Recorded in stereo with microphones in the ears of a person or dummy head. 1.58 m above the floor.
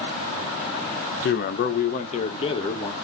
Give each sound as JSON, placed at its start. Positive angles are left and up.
{"t": 1.2, "sound": "a man speaking", "side_deg": 65, "distance_m": 1.0}